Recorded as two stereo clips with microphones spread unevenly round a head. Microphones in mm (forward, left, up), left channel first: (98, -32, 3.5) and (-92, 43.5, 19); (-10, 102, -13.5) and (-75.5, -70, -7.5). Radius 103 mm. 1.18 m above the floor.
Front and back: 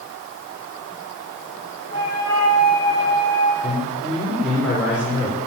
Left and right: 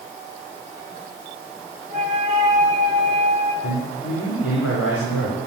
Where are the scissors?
No scissors in this recording.